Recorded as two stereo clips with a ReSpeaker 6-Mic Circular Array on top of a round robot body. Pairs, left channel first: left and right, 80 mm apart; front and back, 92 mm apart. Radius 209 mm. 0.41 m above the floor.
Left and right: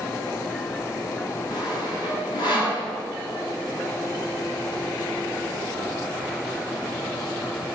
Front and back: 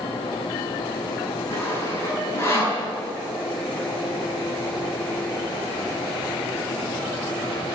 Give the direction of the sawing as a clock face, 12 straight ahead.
10 o'clock.